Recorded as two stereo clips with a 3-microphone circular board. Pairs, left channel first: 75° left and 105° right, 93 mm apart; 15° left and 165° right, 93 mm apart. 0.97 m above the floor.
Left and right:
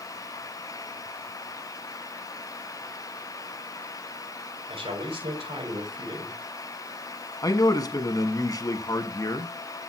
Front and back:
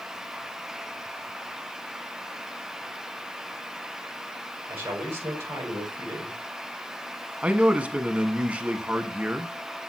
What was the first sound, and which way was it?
A man speaking, 100° right.